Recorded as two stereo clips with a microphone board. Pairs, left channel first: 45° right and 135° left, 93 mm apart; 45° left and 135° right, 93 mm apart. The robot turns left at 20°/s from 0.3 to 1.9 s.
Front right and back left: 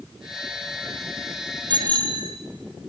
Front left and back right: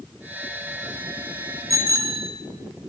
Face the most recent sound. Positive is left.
turn(degrees=170)